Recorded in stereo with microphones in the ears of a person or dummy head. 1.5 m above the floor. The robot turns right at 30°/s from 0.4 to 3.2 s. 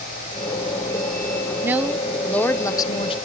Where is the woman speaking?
10° right, 0.6 m; by 3.1 s 35° left, 0.6 m.